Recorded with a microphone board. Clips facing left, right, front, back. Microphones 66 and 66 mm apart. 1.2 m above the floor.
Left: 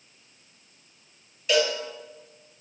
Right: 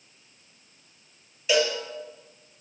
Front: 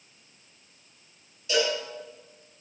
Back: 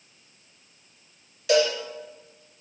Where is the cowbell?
Straight behind, 5 m.